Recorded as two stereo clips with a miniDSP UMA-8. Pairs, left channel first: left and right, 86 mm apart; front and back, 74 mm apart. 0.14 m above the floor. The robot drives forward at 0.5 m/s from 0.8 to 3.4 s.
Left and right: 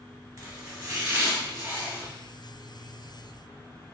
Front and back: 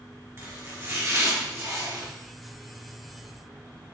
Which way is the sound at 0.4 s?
130° right.